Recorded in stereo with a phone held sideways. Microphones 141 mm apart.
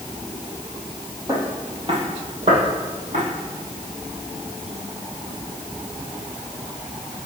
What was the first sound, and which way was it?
Footsteps, 25° right (ahead or behind).